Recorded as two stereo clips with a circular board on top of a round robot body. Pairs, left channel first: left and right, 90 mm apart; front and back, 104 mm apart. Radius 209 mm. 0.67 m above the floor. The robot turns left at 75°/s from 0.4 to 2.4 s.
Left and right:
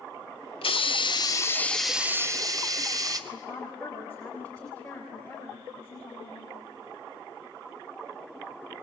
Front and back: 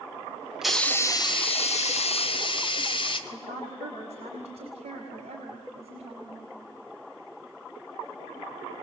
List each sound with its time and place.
0.6 s a hiss: 95° left, 2 m; by 3.2 s 40° right, 2 m
3.3 s a woman speaking: 170° left, 6 m